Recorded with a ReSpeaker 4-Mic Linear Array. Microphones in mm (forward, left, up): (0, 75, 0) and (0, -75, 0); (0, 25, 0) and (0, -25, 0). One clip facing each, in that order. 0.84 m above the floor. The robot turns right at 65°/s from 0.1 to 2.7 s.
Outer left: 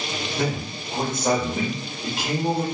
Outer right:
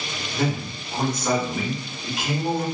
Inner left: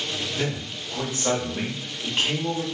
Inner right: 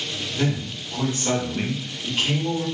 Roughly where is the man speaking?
Ahead.